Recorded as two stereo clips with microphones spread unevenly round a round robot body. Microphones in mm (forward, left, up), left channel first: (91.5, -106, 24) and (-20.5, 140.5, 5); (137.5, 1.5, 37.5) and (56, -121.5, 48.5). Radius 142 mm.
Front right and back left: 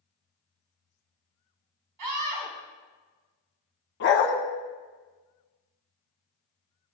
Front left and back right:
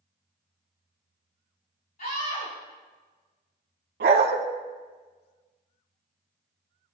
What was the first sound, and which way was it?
A scream, 115° left.